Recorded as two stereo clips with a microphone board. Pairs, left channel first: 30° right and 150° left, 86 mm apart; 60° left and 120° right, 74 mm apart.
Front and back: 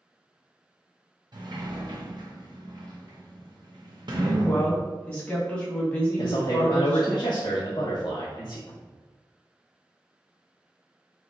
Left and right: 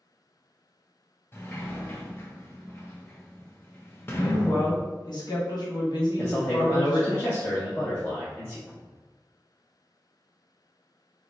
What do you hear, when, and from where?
1.3 s a sliding door: 120° left, 1.0 m
4.2 s a woman speaking: 45° left, 1.7 m
6.2 s a man speaking: straight ahead, 0.9 m
8.7 s a cupboard door: 5° left, 1.5 m